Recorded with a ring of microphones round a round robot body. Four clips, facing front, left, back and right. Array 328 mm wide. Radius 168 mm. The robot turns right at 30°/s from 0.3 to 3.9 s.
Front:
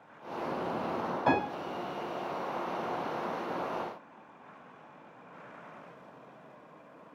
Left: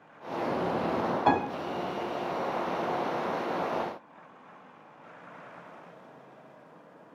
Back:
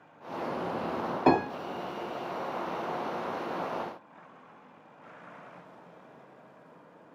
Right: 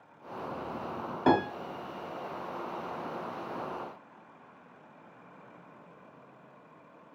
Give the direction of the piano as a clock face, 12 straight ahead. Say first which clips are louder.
Right 1 dB, back 5 dB; 5 o'clock.